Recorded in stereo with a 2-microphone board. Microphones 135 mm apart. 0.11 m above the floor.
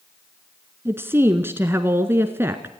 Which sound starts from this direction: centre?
A woman speaking, at 0.8 s.